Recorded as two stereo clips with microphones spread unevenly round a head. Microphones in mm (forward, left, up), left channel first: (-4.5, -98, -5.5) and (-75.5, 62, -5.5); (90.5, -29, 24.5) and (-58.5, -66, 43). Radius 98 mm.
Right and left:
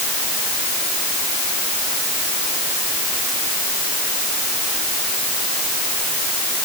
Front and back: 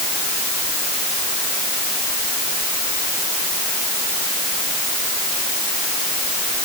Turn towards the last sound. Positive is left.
No sound to turn to.